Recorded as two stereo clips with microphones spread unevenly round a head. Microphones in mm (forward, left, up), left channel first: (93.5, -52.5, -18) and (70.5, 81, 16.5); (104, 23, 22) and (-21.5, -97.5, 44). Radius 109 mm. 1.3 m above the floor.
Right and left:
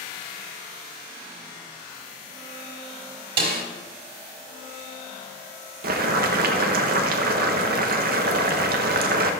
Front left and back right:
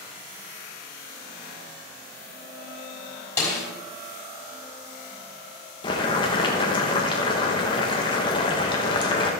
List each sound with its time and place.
3.4 s a snare drum: 120° left, 3 m
5.8 s boiling: 115° left, 1.0 m